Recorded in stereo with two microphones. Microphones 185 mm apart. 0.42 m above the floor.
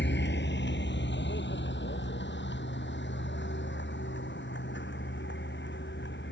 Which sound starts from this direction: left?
A vehicle, at 0.0 s.